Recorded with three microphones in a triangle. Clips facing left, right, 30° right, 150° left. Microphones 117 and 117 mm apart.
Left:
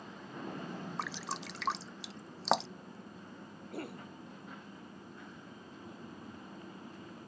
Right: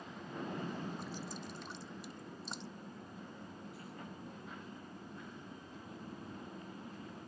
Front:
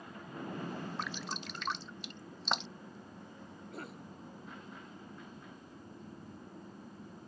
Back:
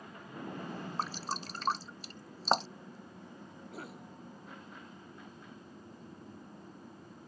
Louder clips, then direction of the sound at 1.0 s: Left 4 dB, back 3 dB; 95° left.